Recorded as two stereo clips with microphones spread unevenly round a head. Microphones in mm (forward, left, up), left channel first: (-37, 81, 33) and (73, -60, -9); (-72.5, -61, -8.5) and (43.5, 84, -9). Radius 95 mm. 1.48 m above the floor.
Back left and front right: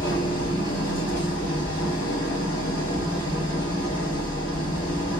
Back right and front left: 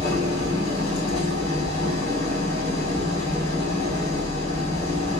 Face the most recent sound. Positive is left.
turn(degrees=175)